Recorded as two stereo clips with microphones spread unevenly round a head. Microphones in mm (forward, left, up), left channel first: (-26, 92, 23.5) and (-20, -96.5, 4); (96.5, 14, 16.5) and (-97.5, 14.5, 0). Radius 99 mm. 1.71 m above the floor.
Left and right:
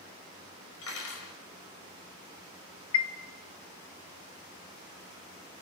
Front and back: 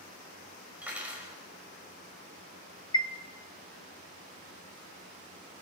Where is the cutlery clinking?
95° left, 5.5 m.